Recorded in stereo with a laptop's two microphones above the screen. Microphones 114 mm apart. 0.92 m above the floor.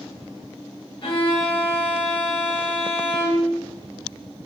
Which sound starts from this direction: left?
A violin, at 1.0 s.